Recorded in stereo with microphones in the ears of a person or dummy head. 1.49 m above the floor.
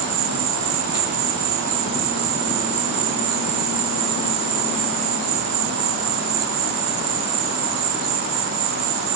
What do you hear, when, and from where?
0.0 s an insect: 55° right (ahead or behind)